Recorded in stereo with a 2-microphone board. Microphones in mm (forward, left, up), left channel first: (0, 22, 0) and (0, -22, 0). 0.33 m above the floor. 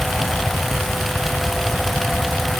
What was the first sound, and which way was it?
Only background noise.